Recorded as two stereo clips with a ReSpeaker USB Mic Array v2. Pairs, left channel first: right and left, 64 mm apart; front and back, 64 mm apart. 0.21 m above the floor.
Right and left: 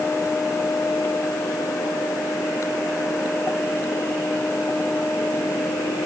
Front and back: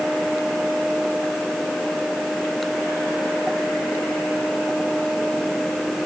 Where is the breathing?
No breathing in this recording.